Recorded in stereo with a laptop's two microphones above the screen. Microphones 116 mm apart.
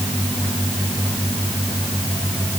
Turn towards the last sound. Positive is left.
No sound to turn to.